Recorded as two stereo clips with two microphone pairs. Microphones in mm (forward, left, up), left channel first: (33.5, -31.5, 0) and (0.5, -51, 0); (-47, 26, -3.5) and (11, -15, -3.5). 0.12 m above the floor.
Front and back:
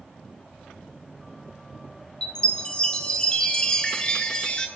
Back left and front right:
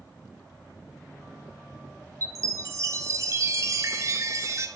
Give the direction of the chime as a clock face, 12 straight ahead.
1 o'clock.